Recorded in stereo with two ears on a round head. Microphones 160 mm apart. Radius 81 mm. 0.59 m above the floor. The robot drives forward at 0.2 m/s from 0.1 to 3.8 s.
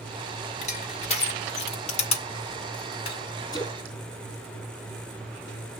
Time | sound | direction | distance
0.6 | crushing | 40° left (ahead or behind) | 2 m
3.5 | a splash | 25° left (ahead or behind) | 3 m